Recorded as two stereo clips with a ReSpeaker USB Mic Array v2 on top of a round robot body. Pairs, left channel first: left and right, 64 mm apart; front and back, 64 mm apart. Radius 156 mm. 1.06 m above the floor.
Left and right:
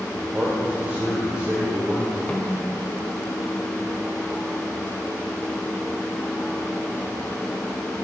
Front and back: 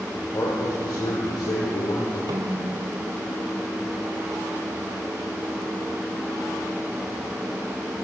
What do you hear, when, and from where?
0.1 s a man speaking: 25° right, 6.5 m; by 2.2 s 10° right, 5 m
2.3 s a snare drum: 160° left, 2.5 m